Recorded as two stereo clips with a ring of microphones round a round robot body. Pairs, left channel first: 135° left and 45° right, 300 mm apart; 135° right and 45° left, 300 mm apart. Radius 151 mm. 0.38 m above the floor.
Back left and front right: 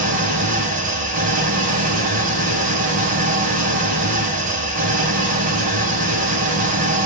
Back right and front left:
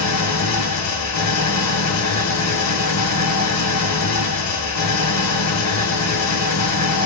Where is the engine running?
105° right, 2 m.